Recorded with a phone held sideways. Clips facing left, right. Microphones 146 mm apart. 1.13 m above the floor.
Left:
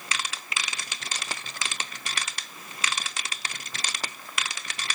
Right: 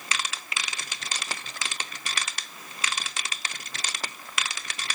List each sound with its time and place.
Only background noise.